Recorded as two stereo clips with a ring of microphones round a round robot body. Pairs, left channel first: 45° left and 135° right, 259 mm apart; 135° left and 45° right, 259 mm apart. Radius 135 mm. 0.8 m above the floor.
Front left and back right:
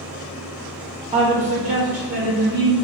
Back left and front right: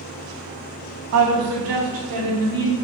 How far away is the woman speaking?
About 0.7 m.